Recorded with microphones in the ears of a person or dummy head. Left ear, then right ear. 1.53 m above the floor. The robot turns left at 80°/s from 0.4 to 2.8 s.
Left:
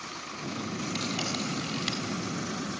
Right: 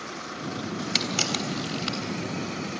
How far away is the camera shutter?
About 3 m.